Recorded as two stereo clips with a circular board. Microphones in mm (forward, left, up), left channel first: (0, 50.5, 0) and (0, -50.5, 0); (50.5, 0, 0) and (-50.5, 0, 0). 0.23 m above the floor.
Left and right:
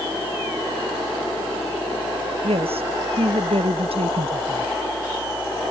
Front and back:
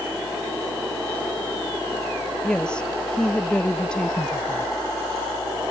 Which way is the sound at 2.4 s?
80° right.